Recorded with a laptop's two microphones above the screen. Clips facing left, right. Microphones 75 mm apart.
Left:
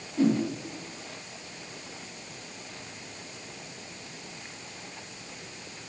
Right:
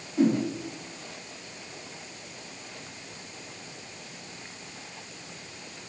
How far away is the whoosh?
About 1.8 m.